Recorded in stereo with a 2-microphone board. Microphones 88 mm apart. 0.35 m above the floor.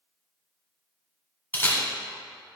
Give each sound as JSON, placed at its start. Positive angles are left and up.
{"t": 1.5, "sound": "a camera shutter", "side_deg": 25, "distance_m": 2.0}